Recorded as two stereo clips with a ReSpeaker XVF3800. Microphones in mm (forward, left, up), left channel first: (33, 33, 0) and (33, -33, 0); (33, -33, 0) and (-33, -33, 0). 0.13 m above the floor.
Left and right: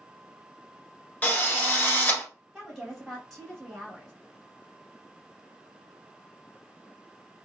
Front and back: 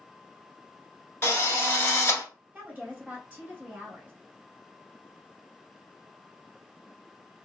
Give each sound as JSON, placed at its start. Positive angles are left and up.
{"t": 1.2, "sound": "a drill", "azimuth_deg": 35, "distance_m": 0.9}
{"t": 2.5, "sound": "a woman speaking", "azimuth_deg": 175, "distance_m": 1.4}